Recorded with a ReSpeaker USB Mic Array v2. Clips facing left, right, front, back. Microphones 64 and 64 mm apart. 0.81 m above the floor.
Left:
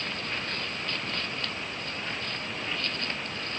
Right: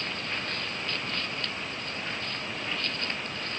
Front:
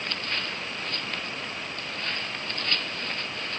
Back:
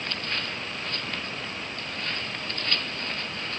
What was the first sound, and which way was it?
Only background noise.